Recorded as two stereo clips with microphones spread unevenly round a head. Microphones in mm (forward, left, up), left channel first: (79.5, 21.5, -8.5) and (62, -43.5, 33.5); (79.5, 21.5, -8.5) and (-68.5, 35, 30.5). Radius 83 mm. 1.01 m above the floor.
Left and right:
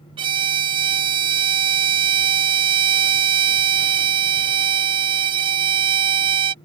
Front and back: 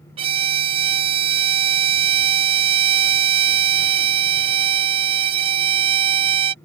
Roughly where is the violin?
Behind right.